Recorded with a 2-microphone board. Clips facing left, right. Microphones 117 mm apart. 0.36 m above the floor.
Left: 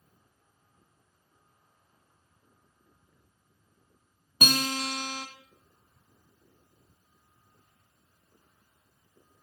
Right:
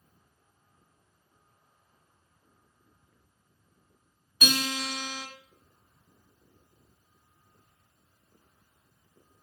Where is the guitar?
55° left (ahead or behind), 1.8 m.